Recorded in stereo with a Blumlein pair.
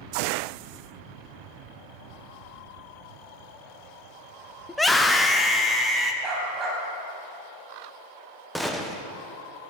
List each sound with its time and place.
4.7 s a scream: 5° left, 0.9 m; by 6.1 s 10° left, 2.5 m
6.2 s a dog barking: 15° right, 5 m
8.6 s a gunshot: straight ahead, 1.4 m